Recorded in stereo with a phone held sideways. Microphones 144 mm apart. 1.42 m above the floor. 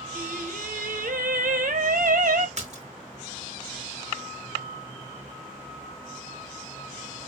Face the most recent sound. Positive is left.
turn(degrees=-55)  # may be behind; listen again after turning